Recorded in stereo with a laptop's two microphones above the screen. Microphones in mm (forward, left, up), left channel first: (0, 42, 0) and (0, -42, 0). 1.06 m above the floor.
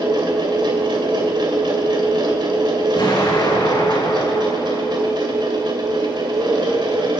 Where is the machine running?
65° right (ahead or behind), 2.5 m.